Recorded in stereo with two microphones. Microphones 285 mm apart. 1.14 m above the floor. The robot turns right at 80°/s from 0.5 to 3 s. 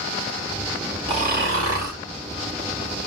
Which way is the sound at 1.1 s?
160° right.